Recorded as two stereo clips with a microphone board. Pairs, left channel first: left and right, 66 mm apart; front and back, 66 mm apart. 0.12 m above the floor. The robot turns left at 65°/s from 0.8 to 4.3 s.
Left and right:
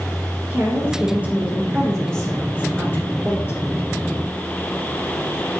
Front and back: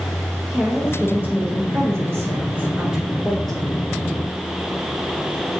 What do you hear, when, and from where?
0.5 s a woman speaking: 110° right, 1.4 m; by 3.6 s 70° left, 1.4 m